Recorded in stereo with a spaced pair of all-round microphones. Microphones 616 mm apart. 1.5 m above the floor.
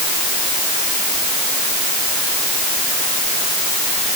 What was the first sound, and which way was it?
Only background noise.